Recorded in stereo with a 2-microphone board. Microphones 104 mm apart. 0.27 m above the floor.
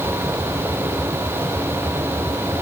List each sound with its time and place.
Only background noise.